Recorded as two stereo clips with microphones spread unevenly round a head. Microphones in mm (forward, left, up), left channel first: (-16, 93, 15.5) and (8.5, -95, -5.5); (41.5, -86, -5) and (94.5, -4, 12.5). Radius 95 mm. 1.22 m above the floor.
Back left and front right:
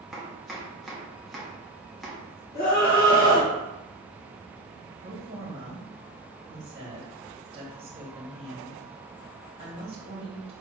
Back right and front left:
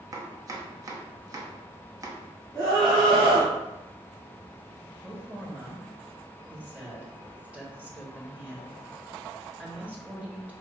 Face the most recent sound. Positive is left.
turn(degrees=-20)